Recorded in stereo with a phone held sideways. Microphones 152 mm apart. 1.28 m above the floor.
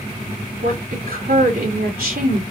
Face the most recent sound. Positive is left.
turn(degrees=-75)  # may be behind; listen again after turning